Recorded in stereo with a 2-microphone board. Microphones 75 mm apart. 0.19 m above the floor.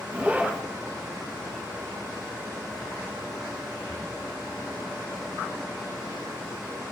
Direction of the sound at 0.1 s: 15° right (ahead or behind).